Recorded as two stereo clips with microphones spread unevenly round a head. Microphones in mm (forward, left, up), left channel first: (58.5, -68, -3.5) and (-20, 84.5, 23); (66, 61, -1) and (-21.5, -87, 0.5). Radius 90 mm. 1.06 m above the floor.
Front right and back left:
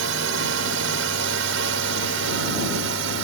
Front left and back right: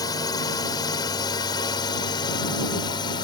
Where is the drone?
130° left; by 3.2 s 125° left.